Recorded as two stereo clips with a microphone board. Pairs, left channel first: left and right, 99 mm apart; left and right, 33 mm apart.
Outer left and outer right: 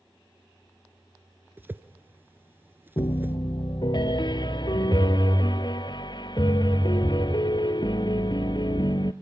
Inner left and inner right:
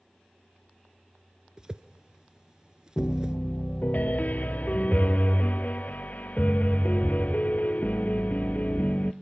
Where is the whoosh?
20° right (ahead or behind), 0.8 m.